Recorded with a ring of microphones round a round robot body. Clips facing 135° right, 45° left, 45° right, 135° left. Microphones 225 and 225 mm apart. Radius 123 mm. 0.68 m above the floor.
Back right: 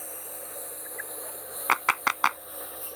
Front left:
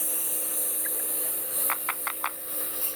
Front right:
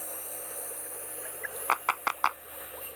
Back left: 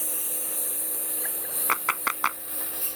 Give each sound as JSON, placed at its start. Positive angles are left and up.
{"t": 0.0, "sound": "a lawn mower", "azimuth_deg": 90}
{"t": 1.7, "sound": "a clap", "azimuth_deg": -160}